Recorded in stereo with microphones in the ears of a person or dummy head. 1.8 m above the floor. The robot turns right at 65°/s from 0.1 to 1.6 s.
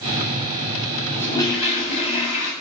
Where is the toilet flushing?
5° left, 7 m; by 2.5 s 35° left, 7 m.